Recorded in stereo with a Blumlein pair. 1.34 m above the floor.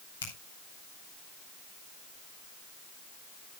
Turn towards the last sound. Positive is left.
turn(degrees=70)